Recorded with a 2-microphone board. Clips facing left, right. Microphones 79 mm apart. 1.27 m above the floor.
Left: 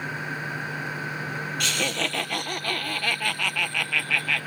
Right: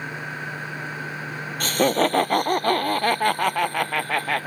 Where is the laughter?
40° right (ahead or behind).